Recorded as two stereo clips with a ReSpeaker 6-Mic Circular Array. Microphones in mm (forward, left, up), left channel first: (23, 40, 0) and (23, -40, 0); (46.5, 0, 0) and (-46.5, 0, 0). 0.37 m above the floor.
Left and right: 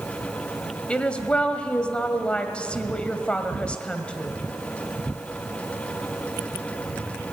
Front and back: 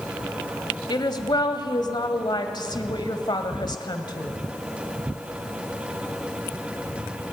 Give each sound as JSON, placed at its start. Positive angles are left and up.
{"t": 0.9, "sound": "a woman speaking", "azimuth_deg": 15, "distance_m": 1.7}